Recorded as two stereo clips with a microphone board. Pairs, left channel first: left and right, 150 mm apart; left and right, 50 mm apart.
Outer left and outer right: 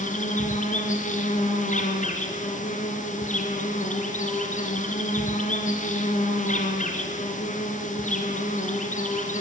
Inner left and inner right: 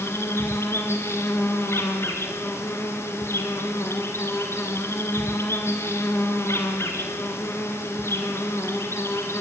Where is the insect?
55° left (ahead or behind), 2.5 m.